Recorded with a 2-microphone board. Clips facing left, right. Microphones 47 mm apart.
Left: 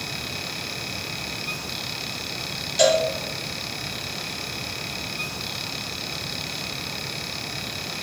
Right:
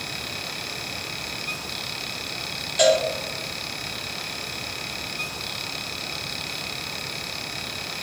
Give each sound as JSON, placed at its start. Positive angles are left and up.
{"t": 2.8, "sound": "a cowbell", "side_deg": -10, "distance_m": 3.0}